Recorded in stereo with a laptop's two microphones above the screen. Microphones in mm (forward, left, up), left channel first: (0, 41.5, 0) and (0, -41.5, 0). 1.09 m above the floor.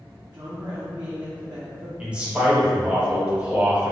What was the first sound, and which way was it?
A woman speaking, 55° right (ahead or behind).